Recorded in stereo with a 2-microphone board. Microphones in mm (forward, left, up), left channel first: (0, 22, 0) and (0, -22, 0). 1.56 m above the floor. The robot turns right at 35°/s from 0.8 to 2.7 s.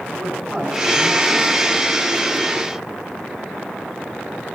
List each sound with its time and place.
0.1 s a man speaking: 5° right (ahead or behind), 9 m; by 1.5 s 30° right (ahead or behind), 9 m